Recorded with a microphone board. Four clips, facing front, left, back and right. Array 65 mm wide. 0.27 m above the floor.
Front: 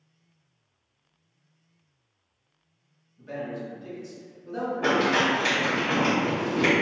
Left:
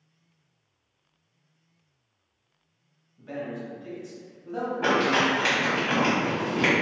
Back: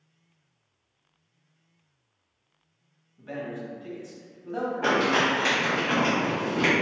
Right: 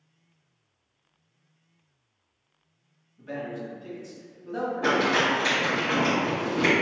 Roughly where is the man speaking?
Behind.